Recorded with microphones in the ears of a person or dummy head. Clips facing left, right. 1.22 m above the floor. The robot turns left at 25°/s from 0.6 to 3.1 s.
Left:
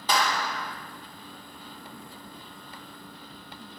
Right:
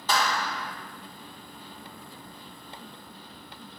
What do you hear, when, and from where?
0.1 s a clap: 15° left (ahead or behind), 0.8 m